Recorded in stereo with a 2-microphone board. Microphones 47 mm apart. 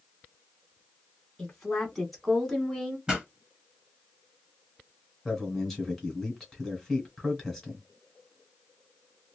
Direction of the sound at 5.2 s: 5° left (ahead or behind).